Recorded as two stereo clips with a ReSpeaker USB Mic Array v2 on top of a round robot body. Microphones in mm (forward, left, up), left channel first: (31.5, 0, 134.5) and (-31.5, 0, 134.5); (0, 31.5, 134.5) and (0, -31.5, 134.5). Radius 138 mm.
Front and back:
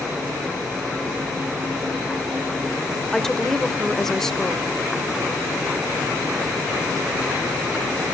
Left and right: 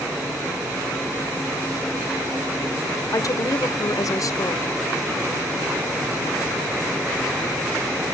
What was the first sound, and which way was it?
A woman speaking, 80° left.